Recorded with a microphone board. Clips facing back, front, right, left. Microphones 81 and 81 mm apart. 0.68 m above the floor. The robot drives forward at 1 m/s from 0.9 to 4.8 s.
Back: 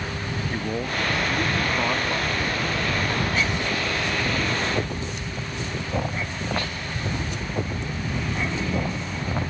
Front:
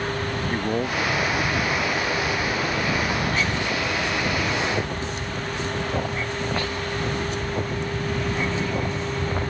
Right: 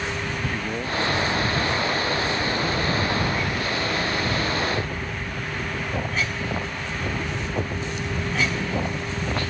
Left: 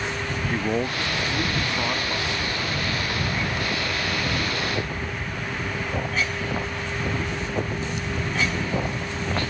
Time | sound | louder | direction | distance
0.5 | a man speaking | front 3 dB, left 3 dB | 60° left | ?